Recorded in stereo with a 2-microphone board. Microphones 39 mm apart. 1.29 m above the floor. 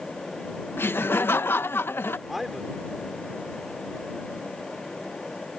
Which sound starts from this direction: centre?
A man speaking, at 2.3 s.